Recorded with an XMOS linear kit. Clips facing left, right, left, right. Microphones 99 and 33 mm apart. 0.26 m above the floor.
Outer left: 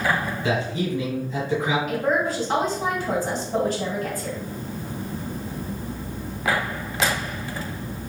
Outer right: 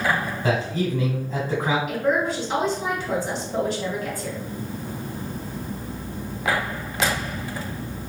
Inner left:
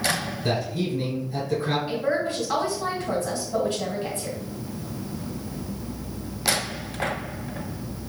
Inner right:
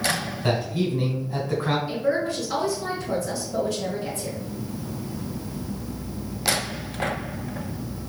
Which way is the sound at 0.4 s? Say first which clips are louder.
Outer right 2 dB, inner right 2 dB; 45° right (ahead or behind).